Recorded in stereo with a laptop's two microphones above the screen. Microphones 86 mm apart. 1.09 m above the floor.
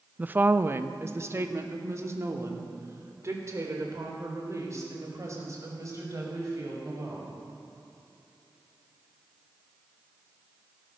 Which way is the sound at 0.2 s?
20° right (ahead or behind).